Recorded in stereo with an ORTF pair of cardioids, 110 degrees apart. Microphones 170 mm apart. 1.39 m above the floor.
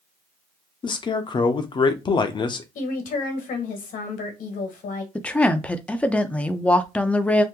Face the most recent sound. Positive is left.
turn(degrees=10)